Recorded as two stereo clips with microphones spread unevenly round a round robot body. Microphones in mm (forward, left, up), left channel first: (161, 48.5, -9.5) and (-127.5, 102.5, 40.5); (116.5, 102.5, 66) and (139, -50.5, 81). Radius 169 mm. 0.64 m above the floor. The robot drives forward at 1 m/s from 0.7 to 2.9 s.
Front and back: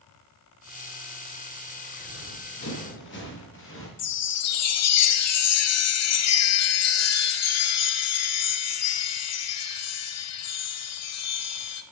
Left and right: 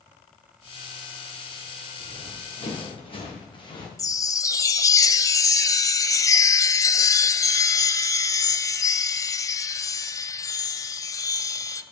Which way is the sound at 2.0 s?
40° left.